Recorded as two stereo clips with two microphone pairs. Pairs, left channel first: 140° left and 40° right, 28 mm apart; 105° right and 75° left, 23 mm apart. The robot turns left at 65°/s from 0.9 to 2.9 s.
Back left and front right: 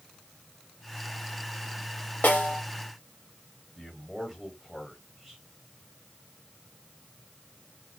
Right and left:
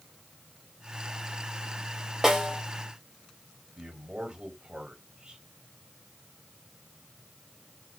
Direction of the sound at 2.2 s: 140° left.